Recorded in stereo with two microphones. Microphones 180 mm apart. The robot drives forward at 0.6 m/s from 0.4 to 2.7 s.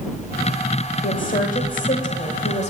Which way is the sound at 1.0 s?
50° left (ahead or behind).